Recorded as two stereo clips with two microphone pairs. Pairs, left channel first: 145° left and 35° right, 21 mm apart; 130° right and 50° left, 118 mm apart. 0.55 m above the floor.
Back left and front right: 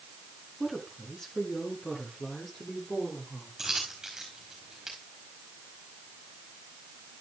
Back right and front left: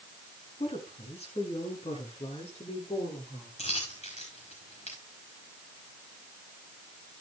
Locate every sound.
0.6 s a woman speaking: 150° right, 5 m; by 3.5 s 165° right, 9 m
3.6 s a dropped coin: 110° right, 4.5 m